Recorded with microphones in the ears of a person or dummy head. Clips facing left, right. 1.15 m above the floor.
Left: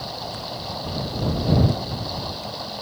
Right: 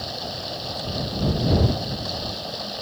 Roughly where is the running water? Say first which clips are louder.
Even; centre.